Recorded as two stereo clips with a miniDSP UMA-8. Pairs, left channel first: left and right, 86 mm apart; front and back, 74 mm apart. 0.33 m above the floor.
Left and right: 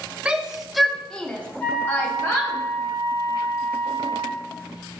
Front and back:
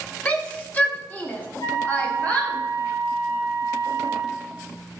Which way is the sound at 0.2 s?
35° right.